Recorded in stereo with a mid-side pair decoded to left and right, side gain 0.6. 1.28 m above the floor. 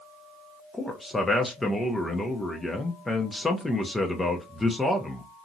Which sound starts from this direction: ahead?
A man speaking, at 0.7 s.